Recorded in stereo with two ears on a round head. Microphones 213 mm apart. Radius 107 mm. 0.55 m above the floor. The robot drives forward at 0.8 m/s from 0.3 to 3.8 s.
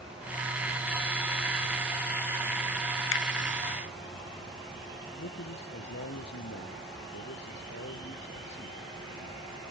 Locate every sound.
3.1 s a finger snap: 55° left (ahead or behind)
5.2 s a man speaking: 45° left (ahead or behind)